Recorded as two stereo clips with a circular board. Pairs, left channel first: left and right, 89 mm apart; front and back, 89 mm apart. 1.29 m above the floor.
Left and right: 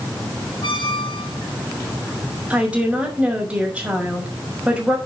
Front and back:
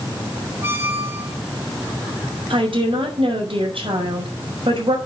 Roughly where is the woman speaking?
Behind.